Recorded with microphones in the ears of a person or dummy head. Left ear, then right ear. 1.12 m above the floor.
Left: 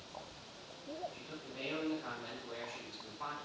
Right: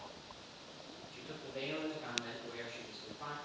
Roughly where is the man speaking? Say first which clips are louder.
Right 2 dB; right.